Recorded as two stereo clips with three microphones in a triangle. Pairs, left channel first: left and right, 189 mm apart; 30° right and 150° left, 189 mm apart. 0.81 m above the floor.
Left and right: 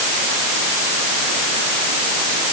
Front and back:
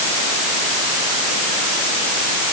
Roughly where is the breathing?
No breathing in this recording.